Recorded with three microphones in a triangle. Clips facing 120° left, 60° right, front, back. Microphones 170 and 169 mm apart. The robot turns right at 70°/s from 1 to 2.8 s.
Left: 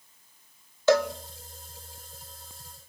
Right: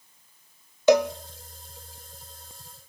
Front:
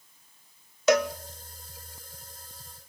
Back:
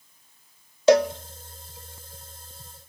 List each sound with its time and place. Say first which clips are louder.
0.9 s a cowbell: right 3 dB, back 5 dB; 130° right, 0.8 m; by 1.1 s 120° right, 0.8 m